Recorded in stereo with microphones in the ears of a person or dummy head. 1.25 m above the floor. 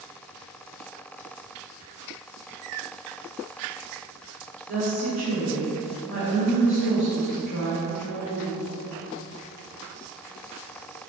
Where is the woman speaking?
45° right (ahead or behind), 1.4 m.